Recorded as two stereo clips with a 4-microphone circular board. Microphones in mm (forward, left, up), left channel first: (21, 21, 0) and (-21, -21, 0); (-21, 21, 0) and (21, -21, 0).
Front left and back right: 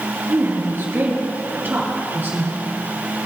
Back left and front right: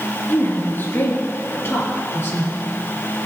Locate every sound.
0.3 s a woman speaking: 175° right, 3 m; by 2.6 s 175° left, 4.5 m